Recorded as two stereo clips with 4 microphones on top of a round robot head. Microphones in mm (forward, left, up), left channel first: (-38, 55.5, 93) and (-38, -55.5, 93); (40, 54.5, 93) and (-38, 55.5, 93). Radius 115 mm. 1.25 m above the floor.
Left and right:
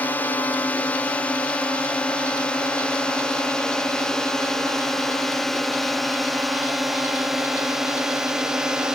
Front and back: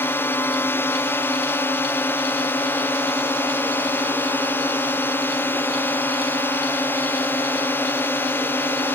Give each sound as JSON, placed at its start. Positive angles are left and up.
{"t": 0.0, "sound": "a drone", "azimuth_deg": 25}